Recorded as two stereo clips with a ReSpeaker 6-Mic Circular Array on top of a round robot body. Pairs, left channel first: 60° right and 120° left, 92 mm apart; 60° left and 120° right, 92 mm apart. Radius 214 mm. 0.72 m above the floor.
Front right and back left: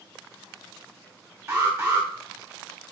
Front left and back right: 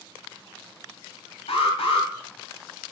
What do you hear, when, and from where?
1.5 s an alarm: 60° left, 3.5 m